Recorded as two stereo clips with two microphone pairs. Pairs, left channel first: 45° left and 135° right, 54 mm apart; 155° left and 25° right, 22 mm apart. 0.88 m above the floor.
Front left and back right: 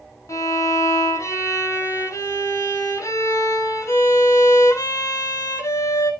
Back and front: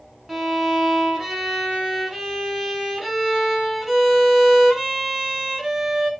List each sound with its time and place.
0.3 s a violin: 60° left, 3.5 m